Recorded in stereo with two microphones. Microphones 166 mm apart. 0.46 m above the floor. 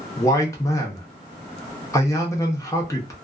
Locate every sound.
0.2 s a man speaking: 20° left (ahead or behind), 0.7 m